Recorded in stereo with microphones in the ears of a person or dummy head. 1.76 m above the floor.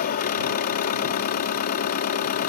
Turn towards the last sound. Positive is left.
turn(degrees=50)  # may be behind; listen again after turning